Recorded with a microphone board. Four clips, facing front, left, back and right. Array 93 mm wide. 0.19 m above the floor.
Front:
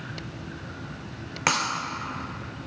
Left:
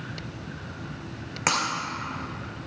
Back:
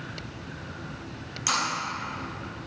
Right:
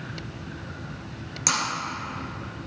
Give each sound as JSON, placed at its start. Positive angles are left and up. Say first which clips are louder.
{"t": 1.5, "sound": "breaking glass", "louder": "left 2 dB, front 3 dB", "azimuth_deg": 35, "distance_m": 1.8}